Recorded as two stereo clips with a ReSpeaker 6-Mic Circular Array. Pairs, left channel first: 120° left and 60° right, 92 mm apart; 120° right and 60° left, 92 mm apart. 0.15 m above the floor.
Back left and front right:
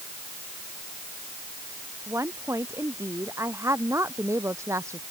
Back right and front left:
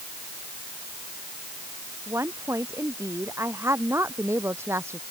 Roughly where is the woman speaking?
Ahead.